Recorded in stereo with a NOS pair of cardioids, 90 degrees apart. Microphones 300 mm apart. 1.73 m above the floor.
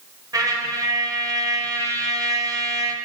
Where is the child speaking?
No child speaking in this recording.